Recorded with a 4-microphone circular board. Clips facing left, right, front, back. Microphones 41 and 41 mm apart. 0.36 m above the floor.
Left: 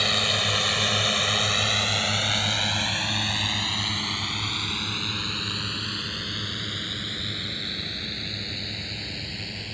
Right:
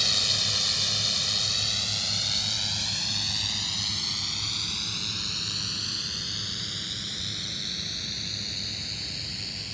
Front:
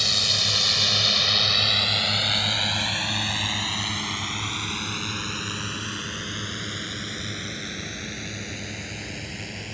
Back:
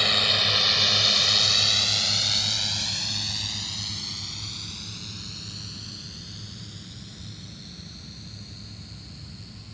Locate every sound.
0.0 s a drone: 130° left; by 9.7 s 20° left